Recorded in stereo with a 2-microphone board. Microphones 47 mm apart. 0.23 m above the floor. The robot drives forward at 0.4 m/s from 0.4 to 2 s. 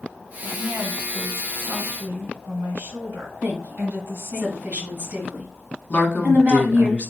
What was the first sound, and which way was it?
A woman speaking, 50° right (ahead or behind).